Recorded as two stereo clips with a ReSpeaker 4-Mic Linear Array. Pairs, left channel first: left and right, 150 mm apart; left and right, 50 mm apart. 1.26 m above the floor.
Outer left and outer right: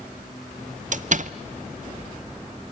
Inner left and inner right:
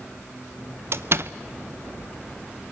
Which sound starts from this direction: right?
A door slam, at 0.9 s.